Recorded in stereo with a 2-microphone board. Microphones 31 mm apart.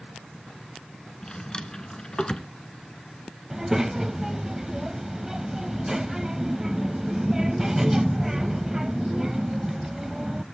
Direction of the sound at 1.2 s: 30° left (ahead or behind).